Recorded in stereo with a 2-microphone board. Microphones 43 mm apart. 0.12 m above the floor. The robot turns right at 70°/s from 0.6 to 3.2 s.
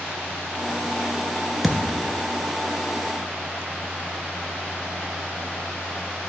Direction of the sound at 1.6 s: 175° right.